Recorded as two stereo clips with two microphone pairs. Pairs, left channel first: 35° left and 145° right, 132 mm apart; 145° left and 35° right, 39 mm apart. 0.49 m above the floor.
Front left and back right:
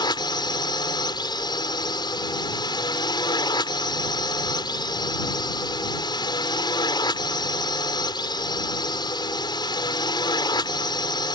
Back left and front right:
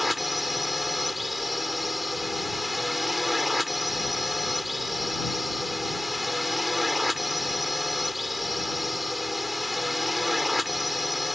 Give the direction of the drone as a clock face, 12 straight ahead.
10 o'clock.